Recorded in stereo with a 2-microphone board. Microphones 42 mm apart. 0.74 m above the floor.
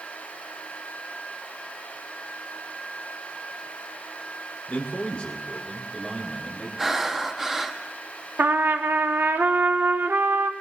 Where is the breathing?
15° right (ahead or behind), 0.9 m.